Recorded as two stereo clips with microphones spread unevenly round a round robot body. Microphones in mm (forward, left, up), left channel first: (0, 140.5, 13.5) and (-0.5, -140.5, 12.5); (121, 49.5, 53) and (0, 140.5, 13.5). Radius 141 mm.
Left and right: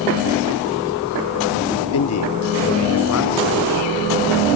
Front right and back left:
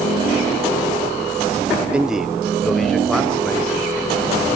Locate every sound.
1.9 s a man speaking: 75° left, 0.8 m; by 4.5 s 50° left, 4.5 m